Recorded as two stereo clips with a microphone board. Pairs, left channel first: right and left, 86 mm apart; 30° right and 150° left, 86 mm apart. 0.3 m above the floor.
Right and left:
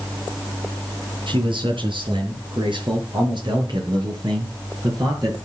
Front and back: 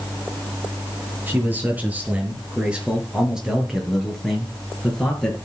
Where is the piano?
I don't hear a piano.